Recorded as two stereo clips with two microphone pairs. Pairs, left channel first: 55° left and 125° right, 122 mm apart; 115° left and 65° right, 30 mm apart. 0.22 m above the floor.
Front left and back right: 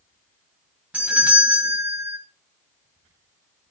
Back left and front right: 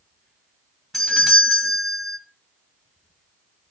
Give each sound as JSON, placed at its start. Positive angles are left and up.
{"t": 0.9, "sound": "a doorbell", "azimuth_deg": 170, "distance_m": 1.7}